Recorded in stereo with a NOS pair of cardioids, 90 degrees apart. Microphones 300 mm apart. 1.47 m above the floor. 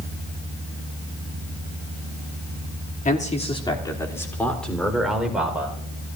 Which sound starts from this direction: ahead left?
A man speaking, at 3.0 s.